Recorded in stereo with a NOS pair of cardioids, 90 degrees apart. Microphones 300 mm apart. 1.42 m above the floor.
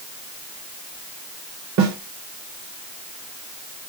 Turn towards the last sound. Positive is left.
turn(degrees=-65)